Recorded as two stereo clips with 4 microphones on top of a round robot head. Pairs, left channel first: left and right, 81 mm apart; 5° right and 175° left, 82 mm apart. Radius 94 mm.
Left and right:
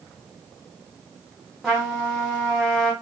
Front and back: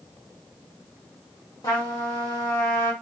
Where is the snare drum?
No snare drum in this recording.